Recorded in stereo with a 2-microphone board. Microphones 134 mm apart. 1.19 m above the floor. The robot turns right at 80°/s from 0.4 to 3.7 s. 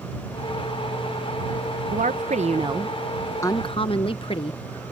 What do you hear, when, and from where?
1.9 s a woman speaking: 100° right; by 4.6 s 45° left